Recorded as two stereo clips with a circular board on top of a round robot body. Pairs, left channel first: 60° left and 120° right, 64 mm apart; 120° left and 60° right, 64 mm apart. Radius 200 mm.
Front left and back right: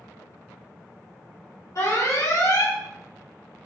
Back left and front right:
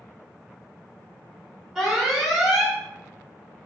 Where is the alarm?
25° left, 1.4 m.